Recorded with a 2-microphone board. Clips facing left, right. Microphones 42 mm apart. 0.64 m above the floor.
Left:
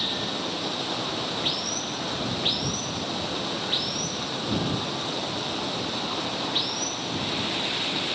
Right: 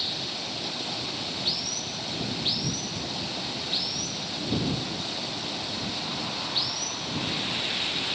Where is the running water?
45° left (ahead or behind).